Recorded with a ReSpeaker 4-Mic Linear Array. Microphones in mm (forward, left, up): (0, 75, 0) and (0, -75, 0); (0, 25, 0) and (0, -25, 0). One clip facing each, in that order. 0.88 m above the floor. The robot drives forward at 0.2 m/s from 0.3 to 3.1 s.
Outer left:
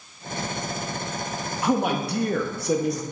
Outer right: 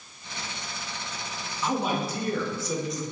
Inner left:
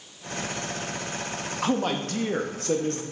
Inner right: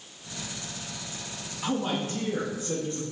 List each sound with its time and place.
1.6 s a man speaking: 65° left (ahead or behind), 0.7 m